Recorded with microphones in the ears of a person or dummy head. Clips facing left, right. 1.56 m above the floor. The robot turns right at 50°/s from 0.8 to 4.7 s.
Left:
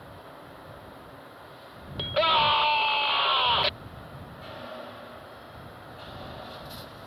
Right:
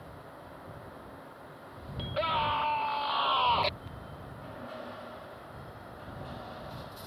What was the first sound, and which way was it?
A scream, 90° left.